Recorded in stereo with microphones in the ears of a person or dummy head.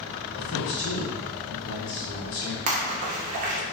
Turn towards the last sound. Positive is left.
turn(degrees=-35)  # may be behind; listen again after turning